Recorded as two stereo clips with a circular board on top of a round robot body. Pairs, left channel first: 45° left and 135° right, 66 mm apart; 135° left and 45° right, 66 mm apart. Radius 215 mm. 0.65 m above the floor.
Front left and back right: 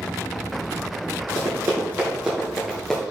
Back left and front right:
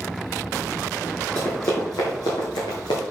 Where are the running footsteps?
165° right, 0.8 m; by 3.0 s 125° left, 1.0 m.